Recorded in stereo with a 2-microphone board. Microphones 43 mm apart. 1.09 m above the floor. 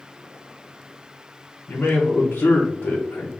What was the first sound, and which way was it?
A man speaking, 70° left (ahead or behind).